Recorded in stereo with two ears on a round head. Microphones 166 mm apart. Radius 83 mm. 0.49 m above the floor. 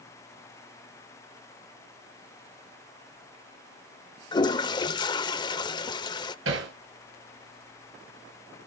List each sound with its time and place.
4.3 s a toilet flushing: 25° left (ahead or behind), 0.6 m
6.5 s hammering: 80° right, 7.5 m